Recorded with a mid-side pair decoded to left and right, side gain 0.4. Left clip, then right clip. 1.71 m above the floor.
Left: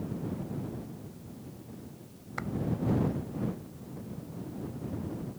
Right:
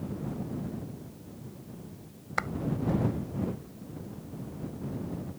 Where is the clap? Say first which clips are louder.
Right 7 dB; 55° right.